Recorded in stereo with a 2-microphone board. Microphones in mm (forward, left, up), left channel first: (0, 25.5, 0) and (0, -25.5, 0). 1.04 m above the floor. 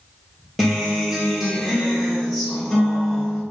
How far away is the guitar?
About 0.9 m.